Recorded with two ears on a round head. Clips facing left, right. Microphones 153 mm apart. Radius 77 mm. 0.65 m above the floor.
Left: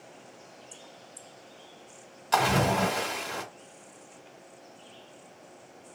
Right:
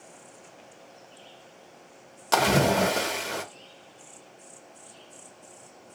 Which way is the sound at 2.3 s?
60° right (ahead or behind).